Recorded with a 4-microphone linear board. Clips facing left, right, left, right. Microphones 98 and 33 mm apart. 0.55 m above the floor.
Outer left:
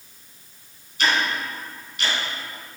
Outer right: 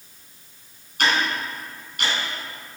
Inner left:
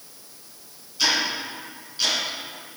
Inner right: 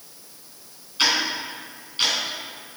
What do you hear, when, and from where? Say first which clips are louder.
1.0 s ticking: even, inner right 1 dB; 55° right (ahead or behind), 3 m